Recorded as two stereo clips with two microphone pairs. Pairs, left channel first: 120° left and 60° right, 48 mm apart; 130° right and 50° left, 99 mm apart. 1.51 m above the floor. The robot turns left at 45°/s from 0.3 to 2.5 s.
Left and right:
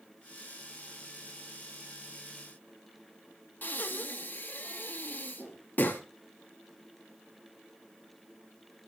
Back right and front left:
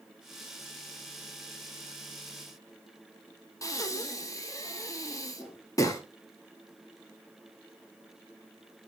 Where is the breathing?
170° left, 1.0 m.